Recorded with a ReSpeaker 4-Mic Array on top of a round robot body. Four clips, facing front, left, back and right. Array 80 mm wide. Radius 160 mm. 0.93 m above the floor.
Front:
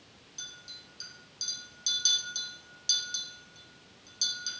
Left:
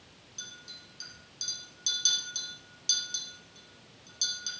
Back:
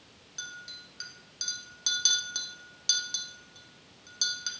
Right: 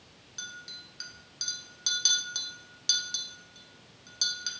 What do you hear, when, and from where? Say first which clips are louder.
0.4 s a clink: right 6 dB, back 8 dB; 140° right, 0.8 m